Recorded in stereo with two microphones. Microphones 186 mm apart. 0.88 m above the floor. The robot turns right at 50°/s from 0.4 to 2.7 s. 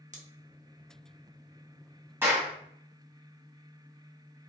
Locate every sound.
0.1 s scissors: 40° right (ahead or behind), 0.6 m
2.2 s a clap: 10° right (ahead or behind), 1.2 m; by 2.5 s 25° right (ahead or behind), 1.2 m